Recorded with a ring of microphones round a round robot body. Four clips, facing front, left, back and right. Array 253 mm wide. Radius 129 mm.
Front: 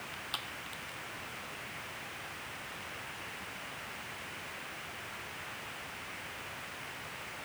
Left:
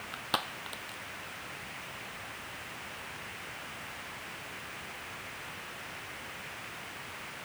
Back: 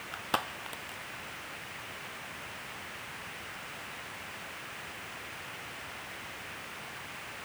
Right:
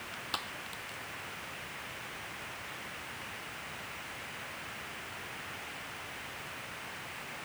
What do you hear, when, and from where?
0.1 s crushing: 150° left